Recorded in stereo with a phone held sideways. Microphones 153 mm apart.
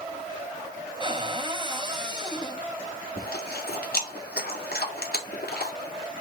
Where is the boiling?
No boiling in this recording.